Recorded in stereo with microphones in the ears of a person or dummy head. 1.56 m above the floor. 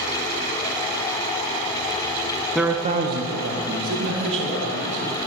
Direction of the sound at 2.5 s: 5° right (ahead or behind).